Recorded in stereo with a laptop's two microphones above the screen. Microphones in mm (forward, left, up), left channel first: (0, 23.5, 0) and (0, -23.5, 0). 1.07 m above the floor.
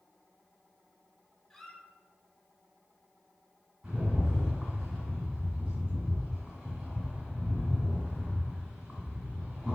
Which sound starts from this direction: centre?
A squeak, at 1.5 s.